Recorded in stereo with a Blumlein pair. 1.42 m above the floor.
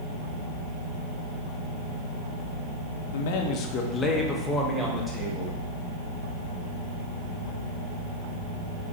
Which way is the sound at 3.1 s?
60° left.